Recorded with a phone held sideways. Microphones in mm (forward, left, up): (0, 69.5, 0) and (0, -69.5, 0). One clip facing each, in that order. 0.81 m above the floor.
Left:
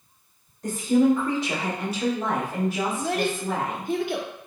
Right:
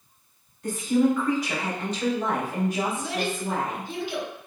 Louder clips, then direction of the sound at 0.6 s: Left 2 dB; 40° left (ahead or behind).